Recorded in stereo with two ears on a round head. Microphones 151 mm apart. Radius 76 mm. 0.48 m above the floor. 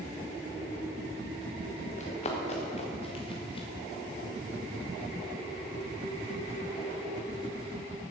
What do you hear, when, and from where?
2.0 s running footsteps: 45° left (ahead or behind), 3.5 m; by 3.7 s 30° left (ahead or behind), 4 m